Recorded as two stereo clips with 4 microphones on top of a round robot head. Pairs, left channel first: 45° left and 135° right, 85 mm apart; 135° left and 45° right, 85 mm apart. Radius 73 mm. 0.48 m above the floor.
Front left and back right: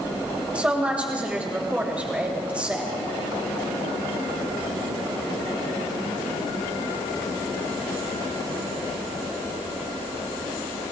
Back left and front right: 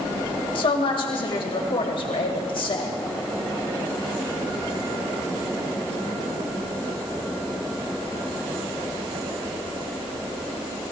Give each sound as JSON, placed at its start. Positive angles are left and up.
{"t": 0.6, "sound": "a woman speaking", "azimuth_deg": 150, "distance_m": 2.5}